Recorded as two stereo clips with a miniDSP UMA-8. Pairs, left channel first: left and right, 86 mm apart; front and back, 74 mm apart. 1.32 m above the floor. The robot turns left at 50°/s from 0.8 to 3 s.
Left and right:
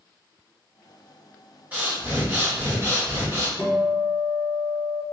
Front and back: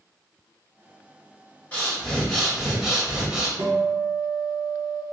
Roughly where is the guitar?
Behind.